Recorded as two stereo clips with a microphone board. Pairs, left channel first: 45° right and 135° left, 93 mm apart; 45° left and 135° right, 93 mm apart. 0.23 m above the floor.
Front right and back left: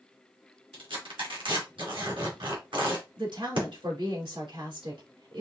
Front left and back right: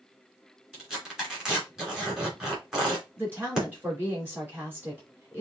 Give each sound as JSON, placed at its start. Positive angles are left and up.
{"t": 0.7, "sound": "tearing paper", "azimuth_deg": 140, "distance_m": 3.0}
{"t": 3.2, "sound": "a woman speaking", "azimuth_deg": 160, "distance_m": 2.5}